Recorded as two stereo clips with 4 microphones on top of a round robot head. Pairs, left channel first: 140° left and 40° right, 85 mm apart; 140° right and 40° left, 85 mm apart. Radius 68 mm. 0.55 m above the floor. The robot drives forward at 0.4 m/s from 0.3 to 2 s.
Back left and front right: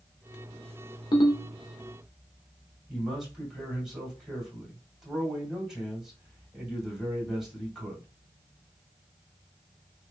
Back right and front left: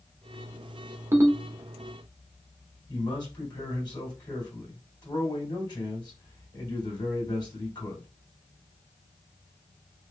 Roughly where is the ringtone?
Left.